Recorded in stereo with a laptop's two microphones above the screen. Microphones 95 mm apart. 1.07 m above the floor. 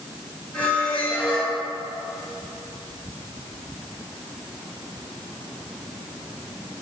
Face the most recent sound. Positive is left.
turn(degrees=15)  # may be behind; listen again after turning